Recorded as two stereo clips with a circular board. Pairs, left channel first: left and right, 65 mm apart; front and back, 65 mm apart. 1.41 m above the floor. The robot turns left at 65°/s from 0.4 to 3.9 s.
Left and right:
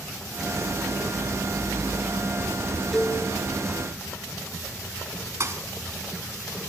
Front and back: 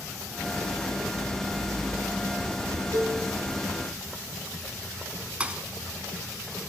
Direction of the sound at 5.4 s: 115° right.